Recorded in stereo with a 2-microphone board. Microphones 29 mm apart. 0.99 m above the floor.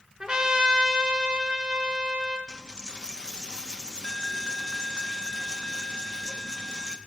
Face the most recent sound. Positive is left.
turn(degrees=25)  # may be behind; listen again after turning